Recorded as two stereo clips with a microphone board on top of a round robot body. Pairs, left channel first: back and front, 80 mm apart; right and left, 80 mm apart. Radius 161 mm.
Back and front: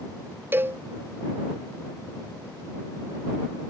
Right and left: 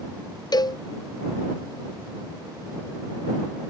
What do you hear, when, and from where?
0.5 s a cowbell: 60° right